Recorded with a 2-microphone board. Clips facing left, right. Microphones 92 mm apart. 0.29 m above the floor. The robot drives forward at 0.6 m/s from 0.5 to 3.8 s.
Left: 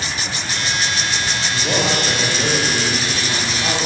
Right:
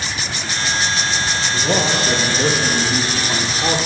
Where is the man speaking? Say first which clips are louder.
Right 1 dB; 5° right (ahead or behind), 9 m.